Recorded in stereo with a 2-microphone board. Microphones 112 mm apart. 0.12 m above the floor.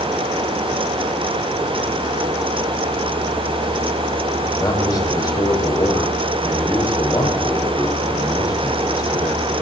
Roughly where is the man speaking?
Left.